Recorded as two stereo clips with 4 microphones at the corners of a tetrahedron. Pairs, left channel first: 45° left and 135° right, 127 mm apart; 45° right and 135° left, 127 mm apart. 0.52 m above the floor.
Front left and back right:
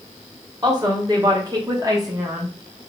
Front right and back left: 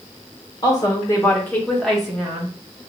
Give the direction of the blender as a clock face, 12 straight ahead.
No blender in this recording.